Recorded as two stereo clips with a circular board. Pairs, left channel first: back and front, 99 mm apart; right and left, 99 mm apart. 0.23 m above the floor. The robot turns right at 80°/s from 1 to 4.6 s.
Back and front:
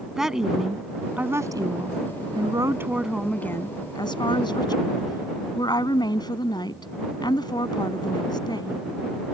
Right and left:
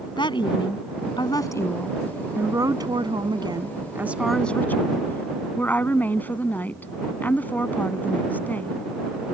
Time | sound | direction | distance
0.2 | a woman speaking | 85° right | ?